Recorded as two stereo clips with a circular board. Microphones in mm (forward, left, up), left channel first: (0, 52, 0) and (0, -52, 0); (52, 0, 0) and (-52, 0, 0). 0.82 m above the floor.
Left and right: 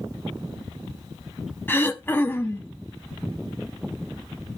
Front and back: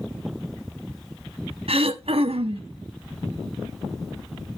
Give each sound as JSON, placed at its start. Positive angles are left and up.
{"t": 1.7, "sound": "throat clearing", "azimuth_deg": 160, "distance_m": 1.1}